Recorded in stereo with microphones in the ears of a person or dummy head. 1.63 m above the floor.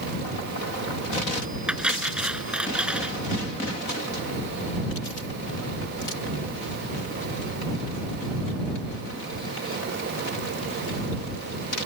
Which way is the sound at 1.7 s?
5° right (ahead or behind).